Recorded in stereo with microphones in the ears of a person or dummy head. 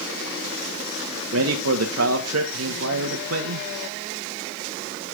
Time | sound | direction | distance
1.3 | a man speaking | 75° right (ahead or behind) | 1.9 m